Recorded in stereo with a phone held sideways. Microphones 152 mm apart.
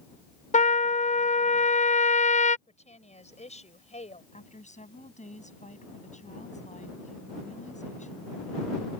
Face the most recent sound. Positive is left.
turn(degrees=50)  # may be behind; listen again after turning